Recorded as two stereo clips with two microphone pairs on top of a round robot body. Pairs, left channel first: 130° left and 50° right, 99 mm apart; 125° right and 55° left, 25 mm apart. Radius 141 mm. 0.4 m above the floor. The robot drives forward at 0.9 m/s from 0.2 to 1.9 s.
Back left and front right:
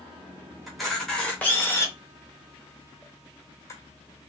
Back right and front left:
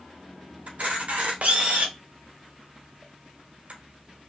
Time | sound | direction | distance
0.7 | a camera shutter | 35° left | 1.9 m